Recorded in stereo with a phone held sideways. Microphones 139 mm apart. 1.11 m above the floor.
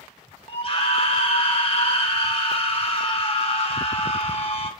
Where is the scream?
40° left (ahead or behind), 2 m.